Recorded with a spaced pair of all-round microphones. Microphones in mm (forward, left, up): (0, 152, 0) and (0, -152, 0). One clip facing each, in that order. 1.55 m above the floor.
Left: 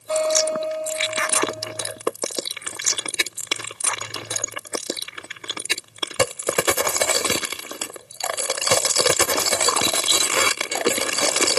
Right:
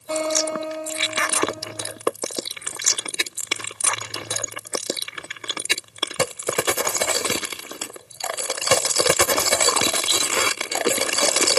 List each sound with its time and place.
0.1 s a guitar: 65° right (ahead or behind), 3.5 m